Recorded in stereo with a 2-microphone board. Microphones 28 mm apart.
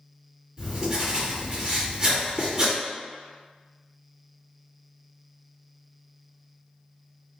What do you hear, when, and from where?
0.6 s writing: 25° right (ahead or behind), 1.7 m